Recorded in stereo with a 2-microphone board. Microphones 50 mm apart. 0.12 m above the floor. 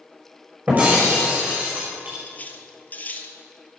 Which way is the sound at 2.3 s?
35° left (ahead or behind).